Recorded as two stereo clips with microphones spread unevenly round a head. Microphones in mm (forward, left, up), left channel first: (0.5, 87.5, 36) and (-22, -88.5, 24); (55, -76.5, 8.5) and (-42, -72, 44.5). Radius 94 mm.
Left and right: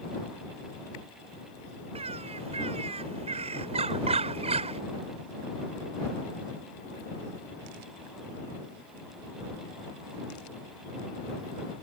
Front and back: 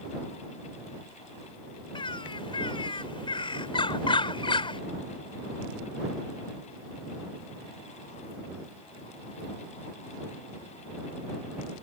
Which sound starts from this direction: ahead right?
A bird, at 1.9 s.